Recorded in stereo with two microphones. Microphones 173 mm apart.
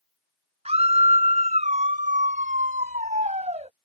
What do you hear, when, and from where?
0.7 s a scream: 35° right (ahead or behind); by 3.7 s 40° right (ahead or behind)